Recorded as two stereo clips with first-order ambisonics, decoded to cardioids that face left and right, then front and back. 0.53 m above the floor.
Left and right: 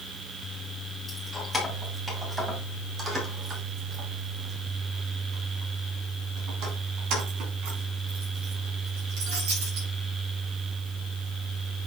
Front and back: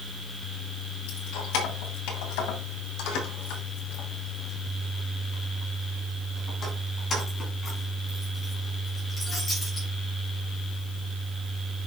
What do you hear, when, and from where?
1.1 s keys jangling: 5° left, 2.5 m; by 9.9 s 80° right, 4.5 m